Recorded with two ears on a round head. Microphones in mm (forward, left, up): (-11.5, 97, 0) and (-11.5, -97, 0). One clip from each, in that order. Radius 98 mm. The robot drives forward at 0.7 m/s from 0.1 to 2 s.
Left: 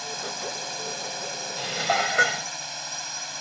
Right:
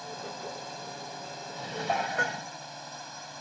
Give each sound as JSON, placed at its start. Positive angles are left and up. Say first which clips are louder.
{"t": 0.0, "sound": "a drone", "louder": "left 7 dB", "side_deg": 60}
{"t": 1.6, "sound": "dishes clattering", "louder": "left 6 dB", "side_deg": 65}